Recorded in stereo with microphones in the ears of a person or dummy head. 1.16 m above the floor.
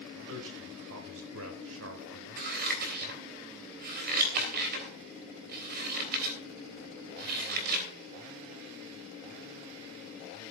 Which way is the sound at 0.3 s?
75° right (ahead or behind).